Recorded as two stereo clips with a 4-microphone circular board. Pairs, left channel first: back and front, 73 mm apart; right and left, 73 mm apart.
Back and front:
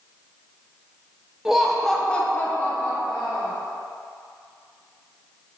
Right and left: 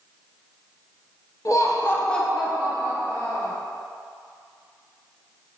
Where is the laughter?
85° right, 0.7 m; by 3.5 s 120° left, 1.0 m.